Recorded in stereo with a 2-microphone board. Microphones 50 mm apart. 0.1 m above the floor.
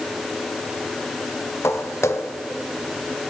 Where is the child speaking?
No child speaking in this recording.